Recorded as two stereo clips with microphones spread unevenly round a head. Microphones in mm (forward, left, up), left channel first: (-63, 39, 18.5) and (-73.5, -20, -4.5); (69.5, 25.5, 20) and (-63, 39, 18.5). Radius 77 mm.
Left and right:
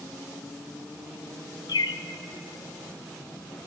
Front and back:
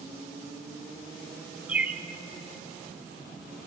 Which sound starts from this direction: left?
A bird, at 1.7 s.